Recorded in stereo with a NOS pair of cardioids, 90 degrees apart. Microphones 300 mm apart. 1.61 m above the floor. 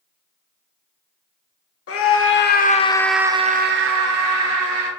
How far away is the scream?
About 0.9 m.